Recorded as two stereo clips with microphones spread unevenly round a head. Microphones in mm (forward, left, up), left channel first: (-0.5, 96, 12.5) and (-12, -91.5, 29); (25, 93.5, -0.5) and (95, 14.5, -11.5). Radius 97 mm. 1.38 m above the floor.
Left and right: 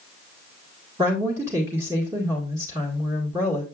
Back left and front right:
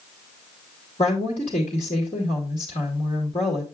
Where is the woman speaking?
170° right, 2.0 m.